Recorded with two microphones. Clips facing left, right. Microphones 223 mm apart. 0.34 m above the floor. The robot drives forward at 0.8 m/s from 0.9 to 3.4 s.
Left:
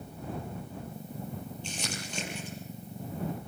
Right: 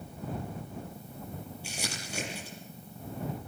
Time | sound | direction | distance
1.6 | crumpling | 10° right (ahead or behind) | 8 m